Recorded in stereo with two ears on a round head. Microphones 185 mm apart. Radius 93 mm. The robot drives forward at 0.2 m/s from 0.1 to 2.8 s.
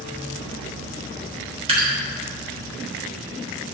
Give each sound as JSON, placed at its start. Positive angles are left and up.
{"t": 1.7, "sound": "dripping", "side_deg": -30, "distance_m": 3.0}